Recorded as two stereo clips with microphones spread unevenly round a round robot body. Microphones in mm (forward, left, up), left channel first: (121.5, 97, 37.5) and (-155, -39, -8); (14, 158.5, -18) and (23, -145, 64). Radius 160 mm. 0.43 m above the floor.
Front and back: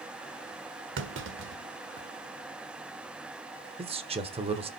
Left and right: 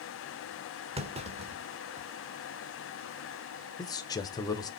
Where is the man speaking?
150° left, 1.3 m.